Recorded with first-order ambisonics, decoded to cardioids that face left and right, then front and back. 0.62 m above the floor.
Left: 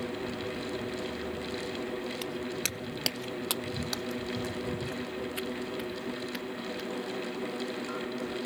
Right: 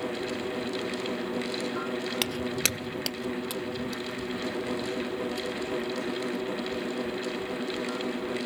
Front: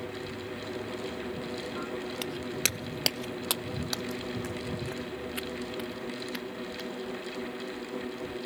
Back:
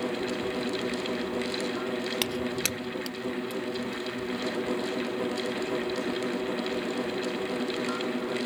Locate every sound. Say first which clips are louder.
2.2 s footsteps: right 6 dB, front 1 dB; 125° right; by 7.2 s 35° left